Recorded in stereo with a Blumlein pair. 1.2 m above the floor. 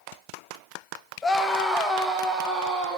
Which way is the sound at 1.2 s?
15° left.